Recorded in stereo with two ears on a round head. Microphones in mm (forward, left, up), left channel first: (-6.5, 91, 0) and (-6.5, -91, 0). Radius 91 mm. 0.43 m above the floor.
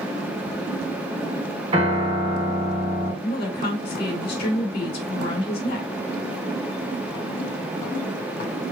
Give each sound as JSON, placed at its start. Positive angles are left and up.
{"t": 1.7, "sound": "a piano", "side_deg": -25, "distance_m": 2.5}
{"t": 3.2, "sound": "a woman speaking", "side_deg": 55, "distance_m": 2.0}